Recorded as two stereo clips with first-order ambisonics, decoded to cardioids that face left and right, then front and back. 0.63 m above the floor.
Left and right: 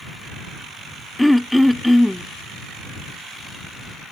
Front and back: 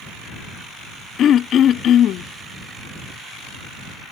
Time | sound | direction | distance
1.2 | throat clearing | straight ahead | ?